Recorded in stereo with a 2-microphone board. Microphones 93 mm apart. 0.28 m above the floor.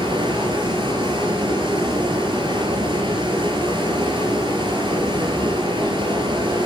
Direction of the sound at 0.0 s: 55° right (ahead or behind).